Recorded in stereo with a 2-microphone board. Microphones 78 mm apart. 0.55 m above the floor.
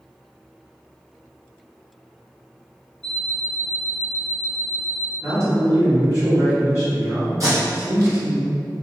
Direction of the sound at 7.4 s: 45° right (ahead or behind).